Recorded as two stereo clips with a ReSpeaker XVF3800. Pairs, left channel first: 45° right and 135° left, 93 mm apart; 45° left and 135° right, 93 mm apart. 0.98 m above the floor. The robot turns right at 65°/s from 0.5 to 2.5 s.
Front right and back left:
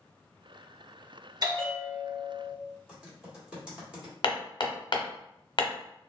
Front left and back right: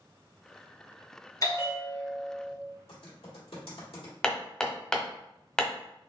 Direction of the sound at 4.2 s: 35° right.